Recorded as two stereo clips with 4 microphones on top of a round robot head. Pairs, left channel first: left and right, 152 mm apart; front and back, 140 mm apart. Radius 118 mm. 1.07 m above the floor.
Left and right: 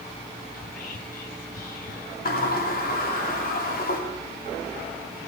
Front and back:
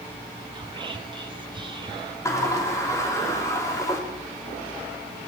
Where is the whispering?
125° left, 0.6 m.